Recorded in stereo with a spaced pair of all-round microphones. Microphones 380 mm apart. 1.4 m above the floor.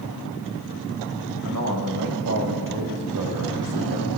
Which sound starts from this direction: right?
A man speaking, at 1.4 s.